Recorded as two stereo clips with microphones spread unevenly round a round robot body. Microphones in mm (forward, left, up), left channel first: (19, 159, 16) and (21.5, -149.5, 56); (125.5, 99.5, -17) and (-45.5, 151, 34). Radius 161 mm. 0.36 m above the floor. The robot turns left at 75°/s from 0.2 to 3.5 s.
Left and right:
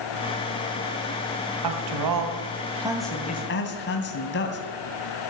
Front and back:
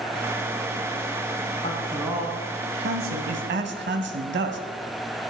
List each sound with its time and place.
1.6 s a man speaking: 80° right, 2.5 m; by 4.6 s 140° left, 2.5 m